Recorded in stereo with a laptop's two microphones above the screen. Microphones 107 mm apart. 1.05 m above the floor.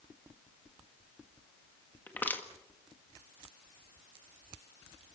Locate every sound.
2.1 s crushing: 15° left (ahead or behind), 1.7 m